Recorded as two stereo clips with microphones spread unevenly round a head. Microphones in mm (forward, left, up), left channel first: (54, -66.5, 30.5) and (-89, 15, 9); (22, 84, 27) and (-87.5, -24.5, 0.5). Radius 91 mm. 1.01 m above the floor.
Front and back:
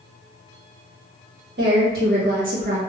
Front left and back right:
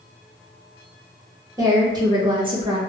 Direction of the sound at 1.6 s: 160° left.